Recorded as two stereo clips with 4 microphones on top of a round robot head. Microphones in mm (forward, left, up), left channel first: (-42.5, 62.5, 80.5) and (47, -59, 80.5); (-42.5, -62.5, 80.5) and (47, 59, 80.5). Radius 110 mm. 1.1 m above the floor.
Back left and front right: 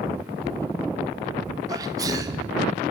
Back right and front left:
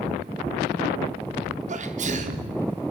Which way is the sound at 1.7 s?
15° left.